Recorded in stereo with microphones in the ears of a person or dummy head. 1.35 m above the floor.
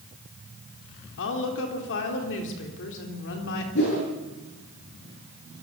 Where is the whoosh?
55° left (ahead or behind), 10 m.